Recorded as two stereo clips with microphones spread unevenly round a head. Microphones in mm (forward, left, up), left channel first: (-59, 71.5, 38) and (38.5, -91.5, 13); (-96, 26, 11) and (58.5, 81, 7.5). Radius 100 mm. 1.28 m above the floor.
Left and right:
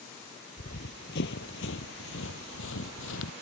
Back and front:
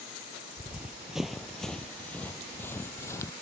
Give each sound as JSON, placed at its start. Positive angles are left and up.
{"t": 0.6, "sound": "running footsteps", "azimuth_deg": 100}